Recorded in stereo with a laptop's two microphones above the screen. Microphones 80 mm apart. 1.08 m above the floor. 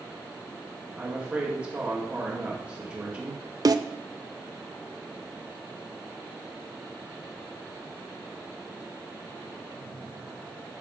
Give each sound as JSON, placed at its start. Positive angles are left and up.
{"t": 1.0, "sound": "a woman speaking", "side_deg": -15, "distance_m": 1.9}
{"t": 3.6, "sound": "a snare drum", "side_deg": -50, "distance_m": 0.6}